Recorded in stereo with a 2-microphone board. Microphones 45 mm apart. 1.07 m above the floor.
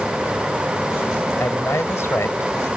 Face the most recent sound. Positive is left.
turn(degrees=85)